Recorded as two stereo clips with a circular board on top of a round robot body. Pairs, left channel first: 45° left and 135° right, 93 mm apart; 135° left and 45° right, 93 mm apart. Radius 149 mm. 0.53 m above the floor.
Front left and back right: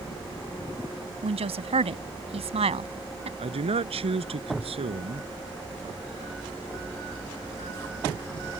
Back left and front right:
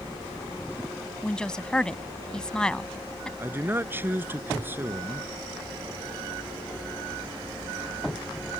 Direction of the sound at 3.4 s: 115° right.